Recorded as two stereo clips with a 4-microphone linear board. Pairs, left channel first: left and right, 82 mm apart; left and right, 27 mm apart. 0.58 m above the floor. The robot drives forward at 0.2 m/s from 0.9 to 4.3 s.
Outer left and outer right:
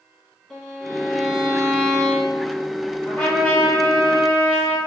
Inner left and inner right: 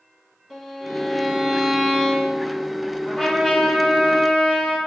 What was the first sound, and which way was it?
A violin, 10° left (ahead or behind).